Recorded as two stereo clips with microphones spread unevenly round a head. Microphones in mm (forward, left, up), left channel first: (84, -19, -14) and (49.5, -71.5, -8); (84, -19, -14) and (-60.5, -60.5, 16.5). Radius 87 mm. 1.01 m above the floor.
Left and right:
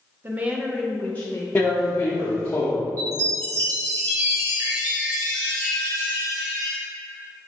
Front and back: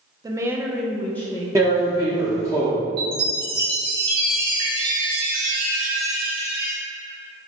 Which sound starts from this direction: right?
A woman speaking, at 0.2 s.